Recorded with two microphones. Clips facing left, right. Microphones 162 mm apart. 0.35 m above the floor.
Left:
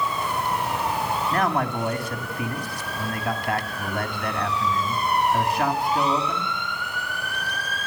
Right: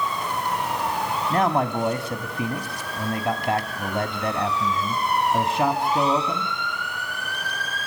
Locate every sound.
1.3 s a man speaking: 25° right (ahead or behind), 2 m